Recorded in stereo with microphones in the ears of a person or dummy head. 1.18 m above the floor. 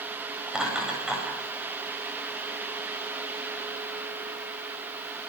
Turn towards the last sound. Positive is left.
turn(degrees=-10)  # may be behind; listen again after turning